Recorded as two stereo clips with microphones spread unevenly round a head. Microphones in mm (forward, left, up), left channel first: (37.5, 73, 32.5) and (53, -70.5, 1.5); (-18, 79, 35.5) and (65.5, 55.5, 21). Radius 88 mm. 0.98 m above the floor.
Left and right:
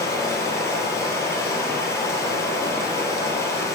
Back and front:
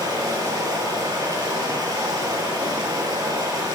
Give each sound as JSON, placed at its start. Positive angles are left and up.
{"t": 0.0, "sound": "running water", "azimuth_deg": 30, "distance_m": 4.5}